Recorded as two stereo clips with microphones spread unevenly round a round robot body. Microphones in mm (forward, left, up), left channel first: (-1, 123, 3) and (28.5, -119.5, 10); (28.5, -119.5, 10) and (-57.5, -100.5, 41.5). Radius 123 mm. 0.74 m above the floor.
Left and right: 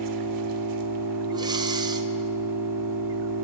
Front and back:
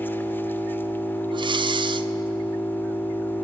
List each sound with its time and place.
0.0 s an engine running: 85° right, 1.0 m
1.3 s breathing: 155° right, 0.6 m